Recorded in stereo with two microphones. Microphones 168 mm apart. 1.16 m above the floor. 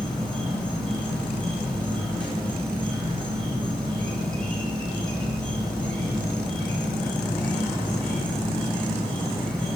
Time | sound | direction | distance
0.0 | an insect | 5° left (ahead or behind) | 3.5 m